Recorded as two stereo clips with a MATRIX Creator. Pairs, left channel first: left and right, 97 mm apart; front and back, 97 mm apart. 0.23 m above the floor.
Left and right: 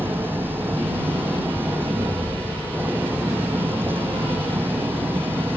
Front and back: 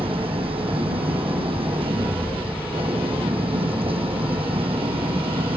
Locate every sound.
0.0 s an engine running: 160° right